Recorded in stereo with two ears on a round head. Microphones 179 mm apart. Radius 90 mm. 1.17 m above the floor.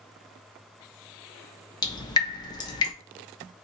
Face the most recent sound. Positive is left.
turn(degrees=20)  # may be behind; listen again after turning